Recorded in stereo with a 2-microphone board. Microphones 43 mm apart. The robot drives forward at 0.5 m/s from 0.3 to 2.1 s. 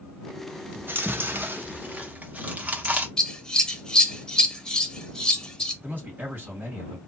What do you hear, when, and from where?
0.8 s chewing: 50° right (ahead or behind), 0.6 m; by 3.1 s 35° right (ahead or behind), 0.8 m
3.2 s scissors: 15° left (ahead or behind), 0.6 m
5.8 s a man speaking: 40° right (ahead or behind), 1.9 m